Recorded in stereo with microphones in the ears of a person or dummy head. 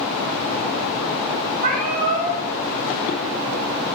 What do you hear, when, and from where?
1.6 s a cat meowing: 40° right (ahead or behind), 1.2 m